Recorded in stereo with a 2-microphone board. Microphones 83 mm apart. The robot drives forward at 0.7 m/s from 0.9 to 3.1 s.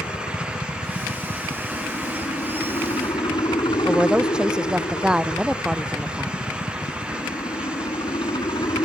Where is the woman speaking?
10° right (ahead or behind).